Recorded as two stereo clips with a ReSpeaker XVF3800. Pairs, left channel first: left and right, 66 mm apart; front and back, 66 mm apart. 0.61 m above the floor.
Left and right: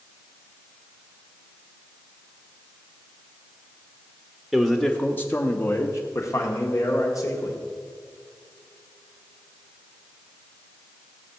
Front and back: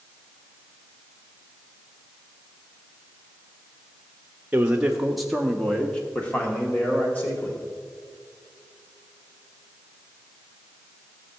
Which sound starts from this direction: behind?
A man speaking, at 4.5 s.